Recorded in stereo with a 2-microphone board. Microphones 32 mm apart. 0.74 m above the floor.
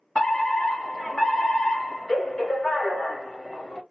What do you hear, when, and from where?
0.1 s a fire alarm: 25° left (ahead or behind), 1.7 m